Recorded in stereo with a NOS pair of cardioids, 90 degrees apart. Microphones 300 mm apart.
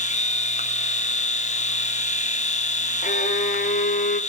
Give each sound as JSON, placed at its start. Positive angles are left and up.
{"t": 0.0, "sound": "a machine running", "azimuth_deg": 25, "distance_m": 0.8}
{"t": 3.0, "sound": "a violin", "azimuth_deg": 30, "distance_m": 0.6}